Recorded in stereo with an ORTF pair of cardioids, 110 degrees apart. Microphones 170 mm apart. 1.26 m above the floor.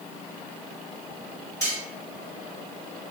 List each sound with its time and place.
1.6 s cutlery clinking: 20° left, 1.7 m